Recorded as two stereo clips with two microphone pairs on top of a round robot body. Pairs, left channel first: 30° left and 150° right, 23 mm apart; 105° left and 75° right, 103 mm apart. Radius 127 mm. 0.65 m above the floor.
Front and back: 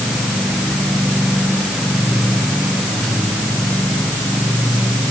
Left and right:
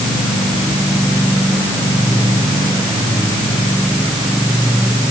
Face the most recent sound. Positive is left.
No sound to turn to.